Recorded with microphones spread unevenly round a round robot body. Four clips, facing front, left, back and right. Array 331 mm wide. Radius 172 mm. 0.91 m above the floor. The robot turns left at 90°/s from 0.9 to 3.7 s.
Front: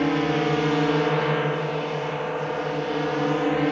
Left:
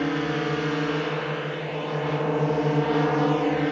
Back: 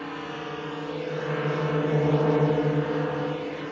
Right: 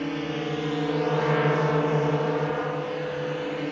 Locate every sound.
0.0 s a drone: 15° left